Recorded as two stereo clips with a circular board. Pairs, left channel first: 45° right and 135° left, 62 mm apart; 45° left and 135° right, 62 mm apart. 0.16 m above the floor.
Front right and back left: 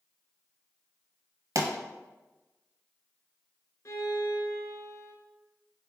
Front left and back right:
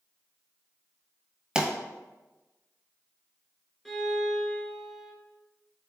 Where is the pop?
150° left, 0.8 m.